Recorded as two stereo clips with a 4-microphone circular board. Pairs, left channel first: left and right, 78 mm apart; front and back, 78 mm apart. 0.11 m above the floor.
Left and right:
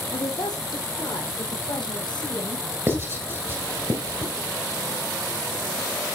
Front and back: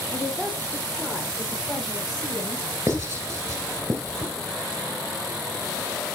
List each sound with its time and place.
0.1 s a woman speaking: 65° left, 2.5 m; by 2.6 s 85° left, 4 m
2.9 s writing: 135° right, 1.9 m